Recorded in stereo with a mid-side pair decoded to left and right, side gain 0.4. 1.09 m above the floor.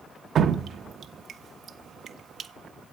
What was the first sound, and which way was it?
Dripping, 60° right.